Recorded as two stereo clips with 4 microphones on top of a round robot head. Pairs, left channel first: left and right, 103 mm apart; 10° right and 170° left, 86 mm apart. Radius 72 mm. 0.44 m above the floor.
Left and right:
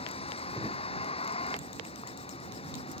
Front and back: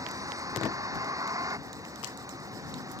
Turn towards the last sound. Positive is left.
turn(degrees=120)